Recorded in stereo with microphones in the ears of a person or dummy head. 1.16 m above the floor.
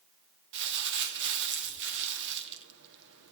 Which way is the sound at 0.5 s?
65° right (ahead or behind).